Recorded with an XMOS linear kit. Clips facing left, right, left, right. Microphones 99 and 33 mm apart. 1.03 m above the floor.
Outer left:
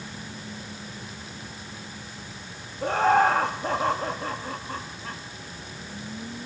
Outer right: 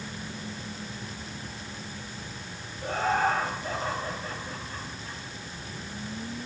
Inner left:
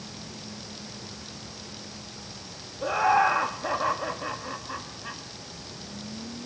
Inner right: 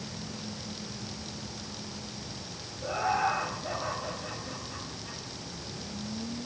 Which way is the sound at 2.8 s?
70° left (ahead or behind).